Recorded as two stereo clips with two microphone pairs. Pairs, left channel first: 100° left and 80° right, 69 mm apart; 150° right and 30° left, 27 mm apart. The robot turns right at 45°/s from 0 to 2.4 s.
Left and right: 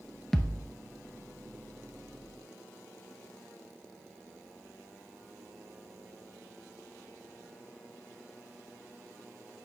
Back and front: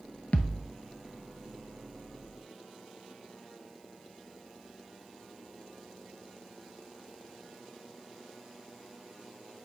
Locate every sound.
0.3 s a thud: 170° right, 0.6 m; by 0.7 s 155° right, 0.6 m